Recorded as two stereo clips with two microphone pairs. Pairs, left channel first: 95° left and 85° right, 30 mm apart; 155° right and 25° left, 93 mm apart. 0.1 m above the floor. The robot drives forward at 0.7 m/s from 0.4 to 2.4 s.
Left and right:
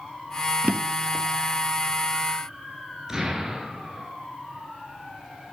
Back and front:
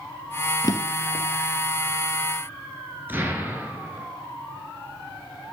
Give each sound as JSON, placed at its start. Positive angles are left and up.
{"t": 0.6, "sound": "a drawer", "azimuth_deg": -115, "distance_m": 0.8}
{"t": 3.1, "sound": "an explosion", "azimuth_deg": -20, "distance_m": 1.7}